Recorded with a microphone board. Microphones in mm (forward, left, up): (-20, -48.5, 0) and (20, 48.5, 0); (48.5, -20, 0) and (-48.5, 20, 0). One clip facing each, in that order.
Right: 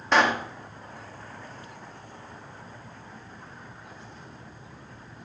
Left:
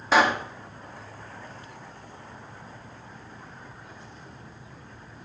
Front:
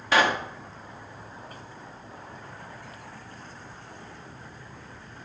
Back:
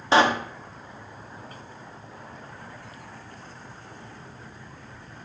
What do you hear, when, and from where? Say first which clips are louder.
0.1 s a pop: left 1 dB, back 3 dB; 150° left, 0.9 m